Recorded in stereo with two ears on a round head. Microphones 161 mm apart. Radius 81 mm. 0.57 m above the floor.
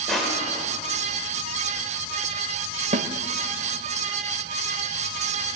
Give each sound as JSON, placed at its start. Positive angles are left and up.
{"t": 0.1, "sound": "crushing", "side_deg": 0, "distance_m": 1.9}
{"t": 2.9, "sound": "a snare drum", "side_deg": -45, "distance_m": 0.6}